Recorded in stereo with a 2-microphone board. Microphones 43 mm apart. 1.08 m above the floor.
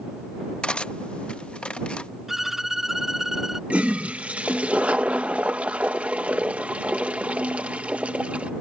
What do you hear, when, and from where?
0.6 s cutlery clinking: 25° left (ahead or behind)
2.3 s a violin: 5° right (ahead or behind)
3.7 s a toilet flushing: 35° right (ahead or behind)